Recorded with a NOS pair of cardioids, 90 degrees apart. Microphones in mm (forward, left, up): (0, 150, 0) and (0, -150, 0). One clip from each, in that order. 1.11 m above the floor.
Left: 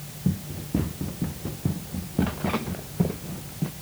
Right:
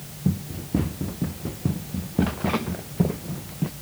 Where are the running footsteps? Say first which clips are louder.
Right 2 dB; 10° right; by 3.7 s 15° right.